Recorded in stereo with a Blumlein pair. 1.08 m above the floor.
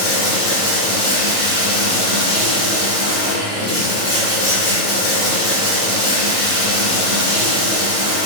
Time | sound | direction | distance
0.0 | running water | 45° left | 2.0 m